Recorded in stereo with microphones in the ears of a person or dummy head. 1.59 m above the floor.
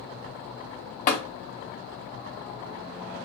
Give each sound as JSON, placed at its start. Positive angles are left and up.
{"t": 1.1, "sound": "tapping", "side_deg": 40, "distance_m": 1.2}